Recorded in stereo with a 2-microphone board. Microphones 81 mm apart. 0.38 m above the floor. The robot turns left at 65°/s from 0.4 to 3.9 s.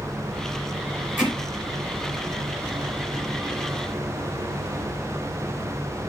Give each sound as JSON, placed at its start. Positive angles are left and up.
{"t": 1.2, "sound": "hammering", "side_deg": -25, "distance_m": 5.0}